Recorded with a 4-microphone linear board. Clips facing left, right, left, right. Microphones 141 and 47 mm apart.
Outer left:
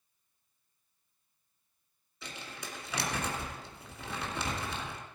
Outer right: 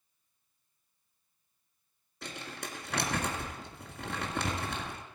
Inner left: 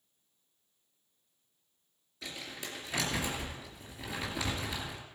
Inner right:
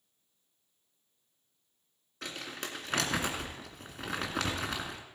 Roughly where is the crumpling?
Right.